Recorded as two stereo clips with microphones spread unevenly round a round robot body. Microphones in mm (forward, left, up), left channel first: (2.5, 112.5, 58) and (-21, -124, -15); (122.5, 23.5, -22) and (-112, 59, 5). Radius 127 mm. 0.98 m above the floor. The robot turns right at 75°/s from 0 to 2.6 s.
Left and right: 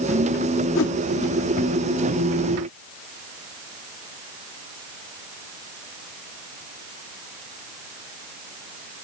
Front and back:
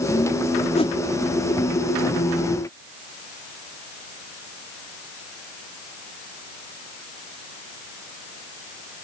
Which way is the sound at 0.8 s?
55° left.